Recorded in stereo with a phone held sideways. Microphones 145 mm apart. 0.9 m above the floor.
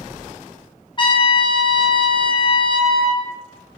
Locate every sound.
1.0 s a trumpet: 35° left (ahead or behind), 0.5 m